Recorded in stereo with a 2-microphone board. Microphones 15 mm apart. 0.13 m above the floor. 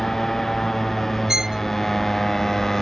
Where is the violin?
35° right (ahead or behind).